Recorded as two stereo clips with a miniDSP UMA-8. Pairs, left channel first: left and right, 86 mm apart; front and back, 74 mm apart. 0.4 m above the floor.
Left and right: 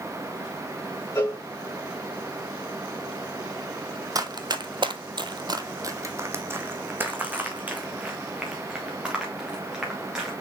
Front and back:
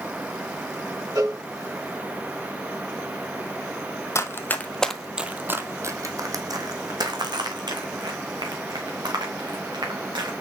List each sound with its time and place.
1.1 s a cowbell: 150° left, 2.5 m
4.2 s running footsteps: 50° right, 0.9 m; by 10.3 s 170° right, 3.5 m